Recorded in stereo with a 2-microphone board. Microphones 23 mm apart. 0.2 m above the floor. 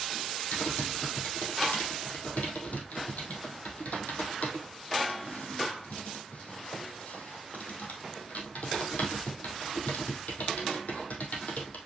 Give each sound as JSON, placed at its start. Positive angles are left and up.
{"t": 0.5, "sound": "typing on a keyboard", "side_deg": 85, "distance_m": 2.5}